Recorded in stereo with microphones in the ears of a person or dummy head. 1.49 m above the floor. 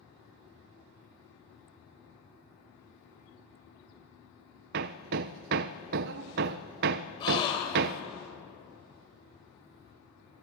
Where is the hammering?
50° right (ahead or behind), 0.6 m.